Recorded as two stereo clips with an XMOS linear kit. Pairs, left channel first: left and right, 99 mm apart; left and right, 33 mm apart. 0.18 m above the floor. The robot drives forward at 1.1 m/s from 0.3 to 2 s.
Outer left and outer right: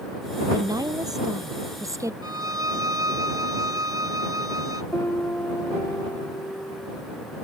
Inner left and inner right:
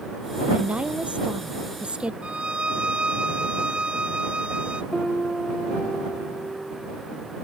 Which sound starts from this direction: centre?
A piano, at 4.9 s.